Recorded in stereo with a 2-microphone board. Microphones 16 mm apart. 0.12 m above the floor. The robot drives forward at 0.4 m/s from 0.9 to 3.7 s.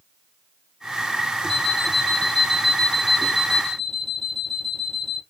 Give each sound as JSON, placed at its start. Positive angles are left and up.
{"t": 1.5, "sound": "an alarm clock", "side_deg": 5, "distance_m": 4.0}